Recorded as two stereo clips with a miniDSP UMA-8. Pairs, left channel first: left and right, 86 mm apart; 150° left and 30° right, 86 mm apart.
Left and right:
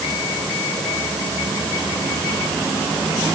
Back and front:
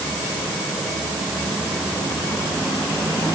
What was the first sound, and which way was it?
Only background noise.